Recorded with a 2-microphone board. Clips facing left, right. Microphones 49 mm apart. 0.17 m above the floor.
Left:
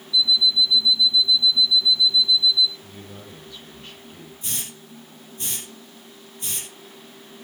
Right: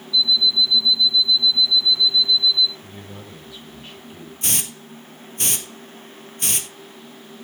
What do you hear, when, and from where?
0.1 s an alarm clock: 10° left (ahead or behind), 0.9 m
2.8 s a man speaking: 5° right (ahead or behind), 4.5 m
4.4 s a hiss: 80° right, 1.4 m